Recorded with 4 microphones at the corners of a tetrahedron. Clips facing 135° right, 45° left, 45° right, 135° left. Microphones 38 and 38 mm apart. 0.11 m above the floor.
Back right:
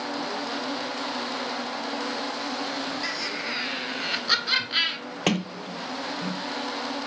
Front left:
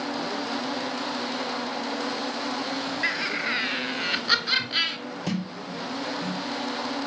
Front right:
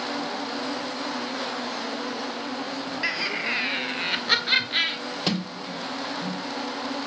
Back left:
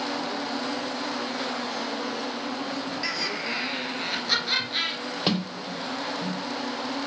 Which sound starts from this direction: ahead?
Laughter, at 3.0 s.